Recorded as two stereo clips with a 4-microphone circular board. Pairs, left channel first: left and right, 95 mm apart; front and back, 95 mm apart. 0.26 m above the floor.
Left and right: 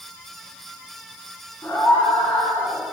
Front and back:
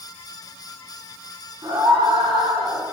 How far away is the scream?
About 3 m.